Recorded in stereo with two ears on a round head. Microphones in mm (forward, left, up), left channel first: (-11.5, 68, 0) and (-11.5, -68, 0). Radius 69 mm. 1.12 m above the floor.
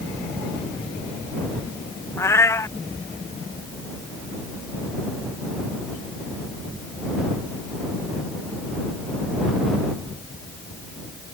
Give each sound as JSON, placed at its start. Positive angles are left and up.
{"t": 2.2, "sound": "a cat meowing", "side_deg": 15}